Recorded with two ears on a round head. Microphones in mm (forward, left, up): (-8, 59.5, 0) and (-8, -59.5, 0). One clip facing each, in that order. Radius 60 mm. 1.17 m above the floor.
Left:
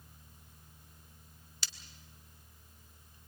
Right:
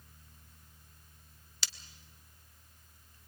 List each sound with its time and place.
1.6 s breaking glass: 60° right (ahead or behind), 1.1 m